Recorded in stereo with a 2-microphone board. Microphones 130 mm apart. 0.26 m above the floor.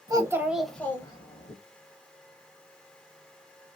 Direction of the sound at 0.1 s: 30° right (ahead or behind).